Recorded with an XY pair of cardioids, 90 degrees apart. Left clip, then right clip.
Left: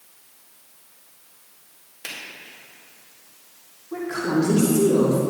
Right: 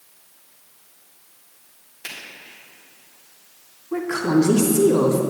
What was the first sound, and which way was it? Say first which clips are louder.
A finger snap: even; 15° left.